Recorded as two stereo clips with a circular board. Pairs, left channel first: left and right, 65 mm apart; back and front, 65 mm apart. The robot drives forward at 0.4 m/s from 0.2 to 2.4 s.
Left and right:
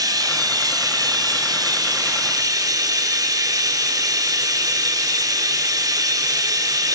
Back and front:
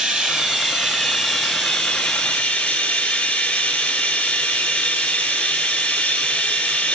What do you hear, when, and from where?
0.0 s running water: 80° right, 1.9 m; by 7.0 s 105° right, 2.0 m